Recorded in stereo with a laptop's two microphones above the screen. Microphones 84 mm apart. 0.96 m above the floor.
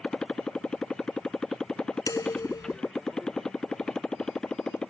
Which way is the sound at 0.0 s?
5° left (ahead or behind).